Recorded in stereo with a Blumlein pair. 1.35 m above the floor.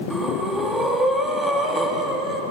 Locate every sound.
0.1 s breathing: 5° right, 2.5 m